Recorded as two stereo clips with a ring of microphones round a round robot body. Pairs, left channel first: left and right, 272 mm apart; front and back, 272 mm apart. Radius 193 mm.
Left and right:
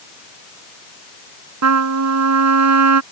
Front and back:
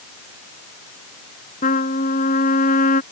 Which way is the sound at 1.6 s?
70° right.